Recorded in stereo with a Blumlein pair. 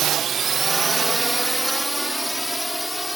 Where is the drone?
30° right; by 3.2 s straight ahead.